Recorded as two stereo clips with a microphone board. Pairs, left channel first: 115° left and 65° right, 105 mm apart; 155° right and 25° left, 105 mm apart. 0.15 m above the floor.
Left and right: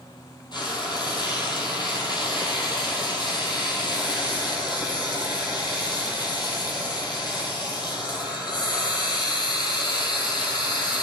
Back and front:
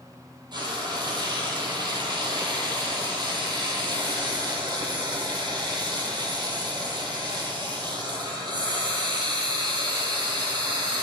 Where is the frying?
65° left, 1.7 m.